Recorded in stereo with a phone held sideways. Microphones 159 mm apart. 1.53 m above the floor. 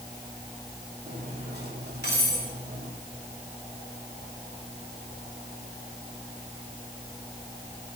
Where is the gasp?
I don't hear a gasp.